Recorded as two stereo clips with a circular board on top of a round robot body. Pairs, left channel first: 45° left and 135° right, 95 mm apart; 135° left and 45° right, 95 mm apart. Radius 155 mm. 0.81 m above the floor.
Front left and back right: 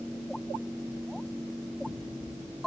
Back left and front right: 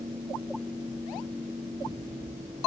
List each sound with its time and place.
Only background noise.